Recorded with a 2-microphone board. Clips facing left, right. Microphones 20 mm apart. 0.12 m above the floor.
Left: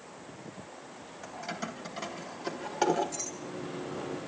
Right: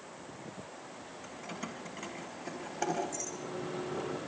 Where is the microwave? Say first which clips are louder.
Left 1 dB; 15° right (ahead or behind), 6 m.